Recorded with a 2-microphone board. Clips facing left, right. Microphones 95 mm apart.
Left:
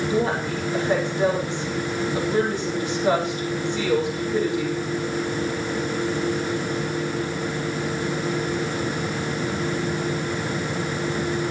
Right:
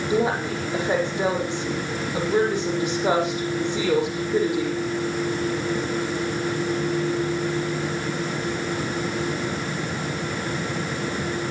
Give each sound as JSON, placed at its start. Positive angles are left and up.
{"t": 0.1, "sound": "a woman speaking", "side_deg": -20, "distance_m": 7.0}